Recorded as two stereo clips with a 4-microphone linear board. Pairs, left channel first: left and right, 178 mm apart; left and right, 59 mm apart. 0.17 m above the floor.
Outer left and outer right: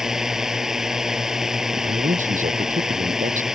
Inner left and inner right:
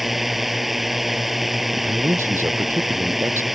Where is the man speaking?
45° right (ahead or behind).